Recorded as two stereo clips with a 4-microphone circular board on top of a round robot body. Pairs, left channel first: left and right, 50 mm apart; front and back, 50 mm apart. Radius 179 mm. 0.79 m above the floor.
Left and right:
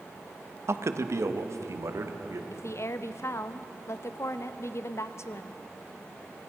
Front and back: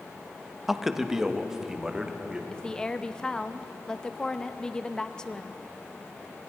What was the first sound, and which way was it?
A man speaking, 95° right.